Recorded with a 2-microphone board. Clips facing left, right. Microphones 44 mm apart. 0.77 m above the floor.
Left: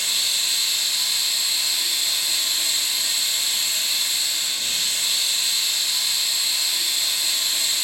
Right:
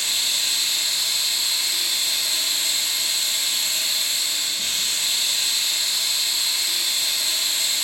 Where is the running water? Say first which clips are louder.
Even; 50° right (ahead or behind), 2 m.